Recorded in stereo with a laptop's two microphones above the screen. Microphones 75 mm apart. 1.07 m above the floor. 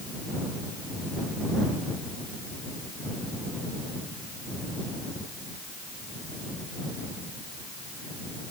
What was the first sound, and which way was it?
Only background noise.